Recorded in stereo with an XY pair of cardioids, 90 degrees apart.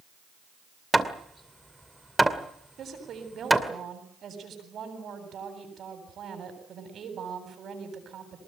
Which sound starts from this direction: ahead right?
A woman speaking, at 2.8 s.